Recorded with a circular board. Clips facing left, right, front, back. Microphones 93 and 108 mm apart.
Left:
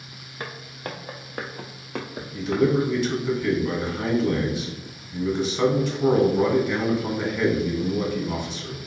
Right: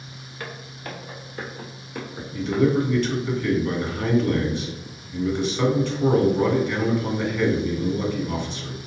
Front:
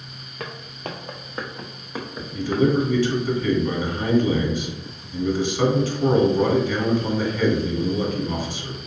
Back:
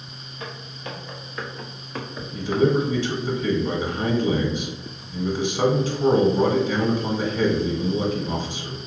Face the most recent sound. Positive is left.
turn(degrees=150)